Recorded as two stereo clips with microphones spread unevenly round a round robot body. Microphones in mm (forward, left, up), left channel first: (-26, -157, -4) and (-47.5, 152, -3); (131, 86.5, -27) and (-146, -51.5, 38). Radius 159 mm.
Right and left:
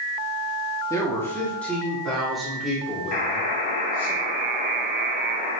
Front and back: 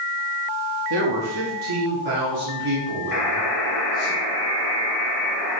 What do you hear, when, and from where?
0.9 s a man speaking: 165° right, 1.7 m; by 4.1 s straight behind, 3.5 m
3.1 s a buzzer: 75° right, 2.5 m